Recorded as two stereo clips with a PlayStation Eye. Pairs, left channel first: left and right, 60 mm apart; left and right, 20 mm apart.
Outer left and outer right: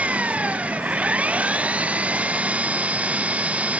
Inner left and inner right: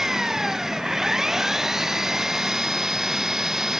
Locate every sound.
0.0 s an engine running: 20° right (ahead or behind)